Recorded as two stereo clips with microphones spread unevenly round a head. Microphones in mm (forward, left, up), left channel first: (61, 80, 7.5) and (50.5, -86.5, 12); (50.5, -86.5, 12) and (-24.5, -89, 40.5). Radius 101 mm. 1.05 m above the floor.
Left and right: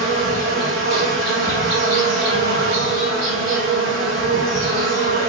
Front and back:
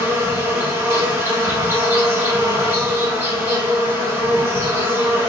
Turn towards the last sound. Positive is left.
turn(degrees=-145)